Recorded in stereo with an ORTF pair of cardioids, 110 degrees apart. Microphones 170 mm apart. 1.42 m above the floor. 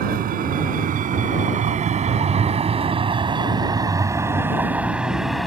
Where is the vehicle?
60° right; by 5.5 s straight ahead.